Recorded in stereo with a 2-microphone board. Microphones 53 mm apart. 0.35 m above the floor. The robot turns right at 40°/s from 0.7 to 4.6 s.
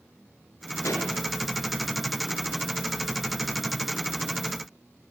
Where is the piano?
I don't hear a piano.